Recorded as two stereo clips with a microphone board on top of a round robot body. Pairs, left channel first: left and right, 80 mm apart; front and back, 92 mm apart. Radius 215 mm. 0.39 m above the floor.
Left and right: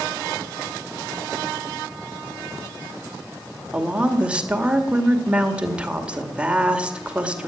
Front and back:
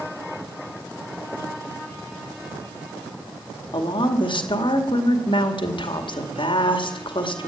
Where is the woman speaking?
15° right, 2.5 m.